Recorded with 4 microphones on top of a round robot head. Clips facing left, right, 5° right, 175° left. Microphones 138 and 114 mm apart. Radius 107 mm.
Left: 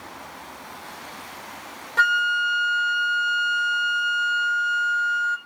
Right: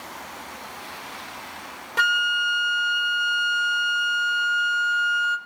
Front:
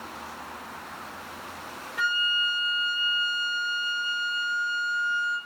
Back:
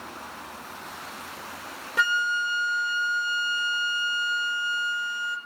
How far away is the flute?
About 0.8 m.